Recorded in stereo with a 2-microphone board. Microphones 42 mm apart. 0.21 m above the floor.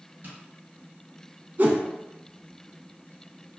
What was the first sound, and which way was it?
Tapping, 45° right (ahead or behind).